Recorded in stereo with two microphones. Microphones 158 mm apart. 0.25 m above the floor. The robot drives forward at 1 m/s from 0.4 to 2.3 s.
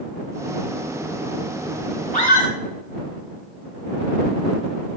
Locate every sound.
2.1 s a scream: 50° left (ahead or behind), 4 m